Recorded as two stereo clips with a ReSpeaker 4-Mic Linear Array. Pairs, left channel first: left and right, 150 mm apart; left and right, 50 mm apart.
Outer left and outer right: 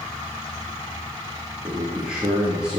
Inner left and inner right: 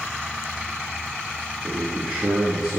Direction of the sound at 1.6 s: 5° right (ahead or behind).